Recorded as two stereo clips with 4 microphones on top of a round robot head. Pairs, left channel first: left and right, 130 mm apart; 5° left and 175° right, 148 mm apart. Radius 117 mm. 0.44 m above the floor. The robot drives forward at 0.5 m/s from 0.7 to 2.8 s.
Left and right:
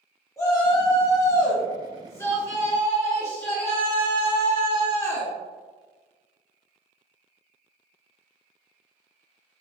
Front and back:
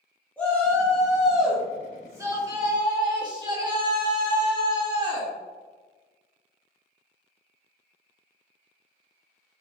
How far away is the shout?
About 1.4 m.